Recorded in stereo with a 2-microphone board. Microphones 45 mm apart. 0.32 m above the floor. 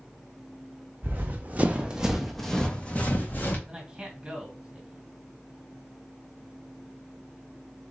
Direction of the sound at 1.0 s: 50° right (ahead or behind).